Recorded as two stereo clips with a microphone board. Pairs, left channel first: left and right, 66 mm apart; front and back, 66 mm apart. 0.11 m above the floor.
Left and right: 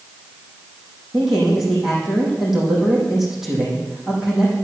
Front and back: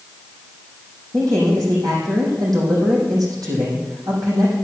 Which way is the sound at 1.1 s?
175° right.